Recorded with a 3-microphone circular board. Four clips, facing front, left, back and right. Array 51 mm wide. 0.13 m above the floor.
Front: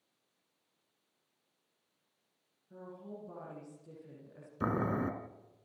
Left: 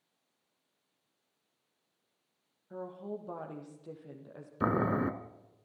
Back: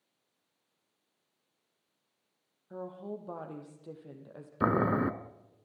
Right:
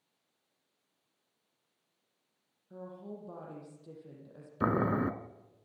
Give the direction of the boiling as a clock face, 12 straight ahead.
6 o'clock.